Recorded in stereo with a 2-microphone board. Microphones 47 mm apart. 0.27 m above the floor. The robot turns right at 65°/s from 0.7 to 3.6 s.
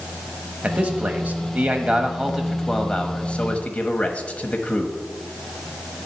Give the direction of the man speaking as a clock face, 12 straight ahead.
4 o'clock.